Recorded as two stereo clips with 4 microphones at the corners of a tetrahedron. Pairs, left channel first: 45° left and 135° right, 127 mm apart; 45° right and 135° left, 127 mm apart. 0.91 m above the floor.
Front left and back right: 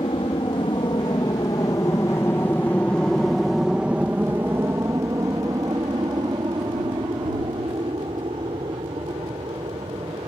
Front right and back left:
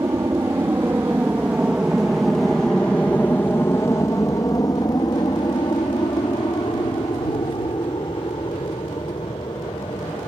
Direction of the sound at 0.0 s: 75° left.